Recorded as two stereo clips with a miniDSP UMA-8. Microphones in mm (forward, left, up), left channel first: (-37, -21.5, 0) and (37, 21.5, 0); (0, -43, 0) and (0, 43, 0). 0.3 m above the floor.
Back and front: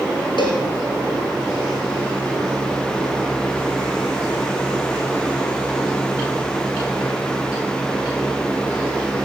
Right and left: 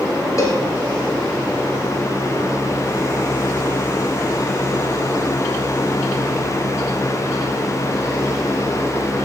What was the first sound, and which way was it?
A cowbell, 140° right.